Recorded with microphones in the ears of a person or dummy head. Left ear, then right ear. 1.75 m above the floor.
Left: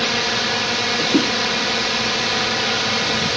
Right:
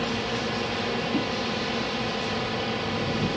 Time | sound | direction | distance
0.0 | a drone | 55° left (ahead or behind) | ?